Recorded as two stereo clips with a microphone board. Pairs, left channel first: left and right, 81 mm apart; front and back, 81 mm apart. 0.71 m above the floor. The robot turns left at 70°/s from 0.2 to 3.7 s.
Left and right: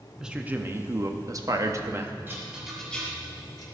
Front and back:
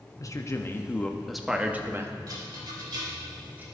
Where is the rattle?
150° right, 1.8 m; by 3.7 s 115° left, 1.8 m.